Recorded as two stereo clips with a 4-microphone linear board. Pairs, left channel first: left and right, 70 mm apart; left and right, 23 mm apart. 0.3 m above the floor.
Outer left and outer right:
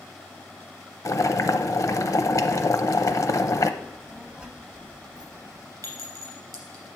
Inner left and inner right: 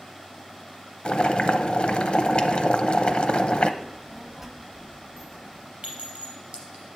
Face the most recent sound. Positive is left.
turn(degrees=-55)  # may be behind; listen again after turning